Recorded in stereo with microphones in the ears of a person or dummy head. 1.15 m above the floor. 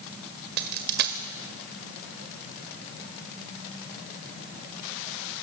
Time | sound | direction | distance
0.6 | a dropped coin | 55° right (ahead or behind) | 1.6 m